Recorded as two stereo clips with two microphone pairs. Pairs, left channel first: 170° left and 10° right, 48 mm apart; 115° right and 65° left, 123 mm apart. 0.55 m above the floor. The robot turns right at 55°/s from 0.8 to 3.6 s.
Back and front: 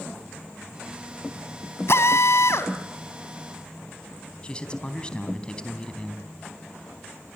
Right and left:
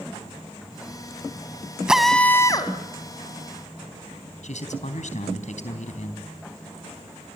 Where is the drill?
145° left, 1.8 m; by 2.7 s 165° right, 1.8 m.